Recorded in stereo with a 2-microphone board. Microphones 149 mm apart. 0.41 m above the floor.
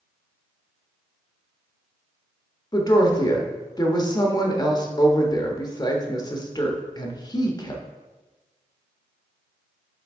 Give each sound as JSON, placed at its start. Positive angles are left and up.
{"t": 2.7, "sound": "a woman speaking", "side_deg": 25, "distance_m": 0.8}